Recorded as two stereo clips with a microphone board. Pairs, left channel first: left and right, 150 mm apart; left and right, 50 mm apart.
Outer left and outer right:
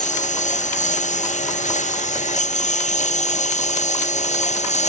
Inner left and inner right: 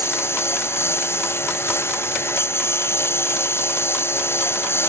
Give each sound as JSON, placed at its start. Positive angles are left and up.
{"t": 0.0, "sound": "a lawn mower", "side_deg": 55}